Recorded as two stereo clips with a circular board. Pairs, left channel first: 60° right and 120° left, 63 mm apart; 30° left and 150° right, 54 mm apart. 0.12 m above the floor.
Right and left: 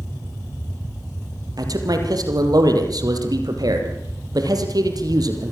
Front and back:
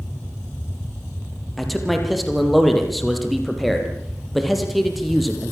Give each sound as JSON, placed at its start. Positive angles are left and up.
{"t": 1.6, "sound": "a man speaking", "azimuth_deg": 120, "distance_m": 4.5}